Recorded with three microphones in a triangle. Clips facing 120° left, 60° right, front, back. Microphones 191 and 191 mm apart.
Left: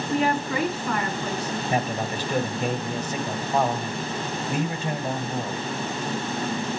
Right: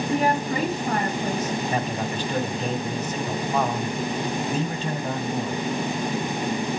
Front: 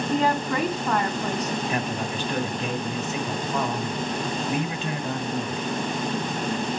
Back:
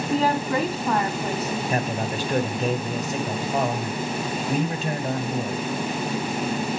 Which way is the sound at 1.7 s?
165° right.